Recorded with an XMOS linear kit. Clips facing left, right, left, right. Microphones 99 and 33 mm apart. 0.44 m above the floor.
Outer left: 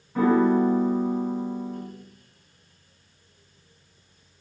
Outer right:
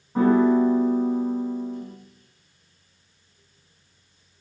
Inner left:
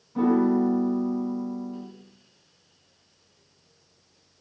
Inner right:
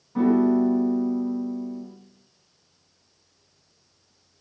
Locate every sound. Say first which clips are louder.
0.1 s a piano: outer right 2 dB, inner right 2 dB; 25° right (ahead or behind), 1.0 m